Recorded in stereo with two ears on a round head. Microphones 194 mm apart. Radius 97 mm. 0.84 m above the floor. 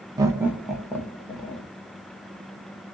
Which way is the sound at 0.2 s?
20° right (ahead or behind).